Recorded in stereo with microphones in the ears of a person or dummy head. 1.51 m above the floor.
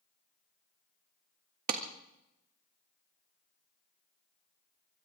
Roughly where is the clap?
Right.